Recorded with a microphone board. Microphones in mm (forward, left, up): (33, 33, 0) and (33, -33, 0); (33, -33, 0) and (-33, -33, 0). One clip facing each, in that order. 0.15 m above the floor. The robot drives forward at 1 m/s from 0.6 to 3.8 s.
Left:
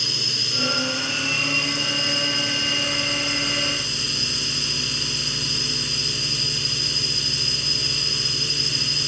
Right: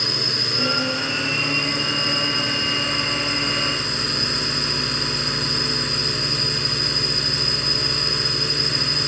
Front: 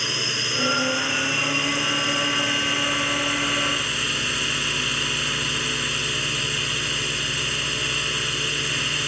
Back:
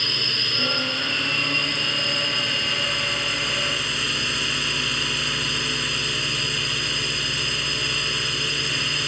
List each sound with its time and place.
0.0 s a drone: 75° right; by 9.1 s 90° right